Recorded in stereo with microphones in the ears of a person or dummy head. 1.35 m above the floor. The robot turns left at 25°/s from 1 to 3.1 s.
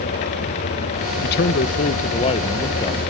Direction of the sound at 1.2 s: 60° left.